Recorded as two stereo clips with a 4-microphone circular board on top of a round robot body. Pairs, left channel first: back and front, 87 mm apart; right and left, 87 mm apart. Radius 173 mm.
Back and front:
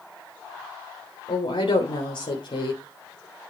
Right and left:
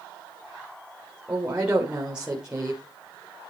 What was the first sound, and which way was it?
A woman speaking, 170° left.